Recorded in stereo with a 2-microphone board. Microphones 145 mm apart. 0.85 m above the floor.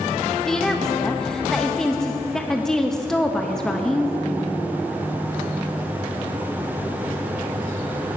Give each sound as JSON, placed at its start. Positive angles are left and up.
{"t": 0.5, "sound": "a woman speaking", "side_deg": 5, "distance_m": 0.5}